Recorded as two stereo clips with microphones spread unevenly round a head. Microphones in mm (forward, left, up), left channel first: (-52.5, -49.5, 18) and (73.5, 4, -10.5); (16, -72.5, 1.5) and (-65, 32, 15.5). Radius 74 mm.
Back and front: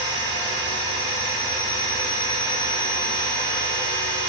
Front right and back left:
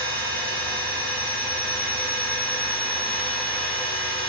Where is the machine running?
145° left, 2 m.